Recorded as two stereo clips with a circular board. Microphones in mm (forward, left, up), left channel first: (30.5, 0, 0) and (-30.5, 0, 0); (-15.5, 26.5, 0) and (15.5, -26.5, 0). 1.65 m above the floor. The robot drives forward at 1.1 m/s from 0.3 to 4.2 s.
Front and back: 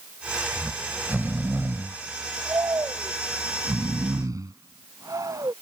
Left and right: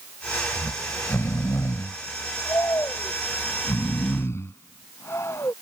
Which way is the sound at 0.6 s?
110° left.